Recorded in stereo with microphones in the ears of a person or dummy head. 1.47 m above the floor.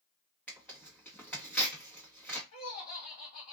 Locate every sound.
0.5 s tearing paper: 5° left (ahead or behind), 1.2 m
2.5 s laughter: 45° left (ahead or behind), 1.7 m